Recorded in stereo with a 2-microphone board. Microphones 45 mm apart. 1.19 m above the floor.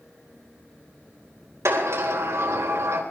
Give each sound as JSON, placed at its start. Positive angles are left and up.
{"t": 1.6, "sound": "a sliding door", "side_deg": -75, "distance_m": 4.0}